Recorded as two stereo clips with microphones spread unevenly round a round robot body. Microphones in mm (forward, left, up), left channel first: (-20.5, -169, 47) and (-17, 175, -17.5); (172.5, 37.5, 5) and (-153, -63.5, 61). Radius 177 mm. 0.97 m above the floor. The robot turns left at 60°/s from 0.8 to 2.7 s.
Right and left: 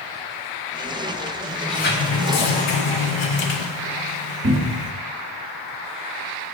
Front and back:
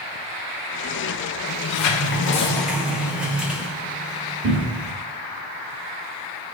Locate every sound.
1.5 s a sliding door: straight ahead, 0.8 m; by 4.9 s 75° right, 0.8 m
4.4 s a cupboard door: 150° left, 0.9 m